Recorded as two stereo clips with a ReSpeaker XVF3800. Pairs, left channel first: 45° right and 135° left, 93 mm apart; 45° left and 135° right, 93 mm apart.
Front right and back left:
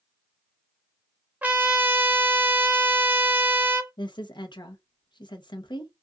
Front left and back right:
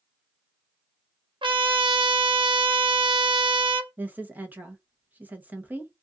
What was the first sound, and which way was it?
A trumpet, 155° right.